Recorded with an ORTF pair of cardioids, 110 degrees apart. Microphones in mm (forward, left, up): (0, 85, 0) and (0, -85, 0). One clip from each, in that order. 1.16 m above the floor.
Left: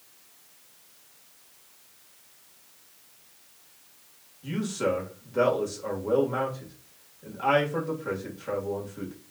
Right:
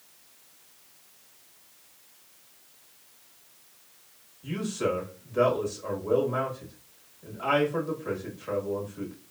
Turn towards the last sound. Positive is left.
turn(degrees=15)